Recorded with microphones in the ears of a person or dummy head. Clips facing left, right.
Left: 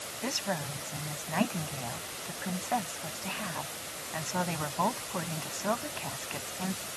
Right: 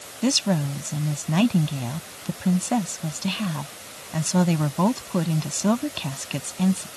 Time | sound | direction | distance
0.2 | a woman speaking | 45° right (ahead or behind) | ?